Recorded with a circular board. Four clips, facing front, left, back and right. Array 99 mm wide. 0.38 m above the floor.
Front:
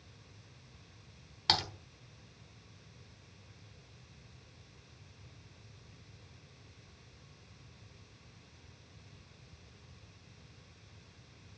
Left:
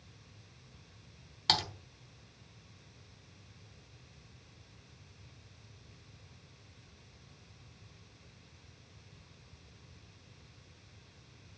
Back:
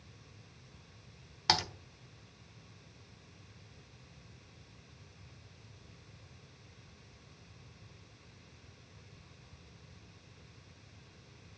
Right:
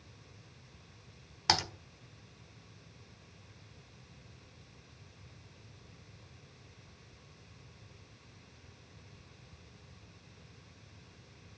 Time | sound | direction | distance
1.5 | typing on a keyboard | 120° right | 1.3 m